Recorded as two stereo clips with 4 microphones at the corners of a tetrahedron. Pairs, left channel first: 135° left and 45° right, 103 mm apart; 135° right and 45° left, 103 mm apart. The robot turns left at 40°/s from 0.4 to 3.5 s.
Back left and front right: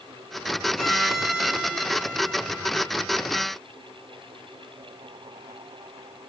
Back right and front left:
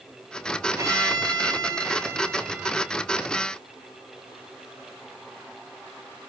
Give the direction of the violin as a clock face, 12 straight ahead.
10 o'clock.